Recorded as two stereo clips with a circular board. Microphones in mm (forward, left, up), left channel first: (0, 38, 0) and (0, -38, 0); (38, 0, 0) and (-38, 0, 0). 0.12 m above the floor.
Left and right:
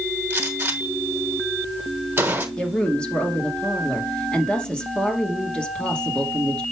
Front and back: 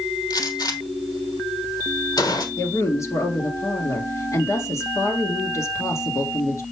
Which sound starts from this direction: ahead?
A woman speaking, at 2.6 s.